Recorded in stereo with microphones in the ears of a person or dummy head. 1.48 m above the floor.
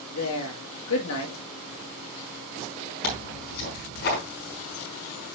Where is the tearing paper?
55° left (ahead or behind), 5 m.